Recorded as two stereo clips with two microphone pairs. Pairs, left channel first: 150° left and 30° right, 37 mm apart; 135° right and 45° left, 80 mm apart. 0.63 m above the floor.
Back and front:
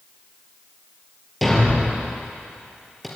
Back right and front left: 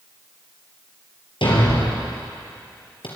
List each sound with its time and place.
1.4 s a thud: 125° right, 4.5 m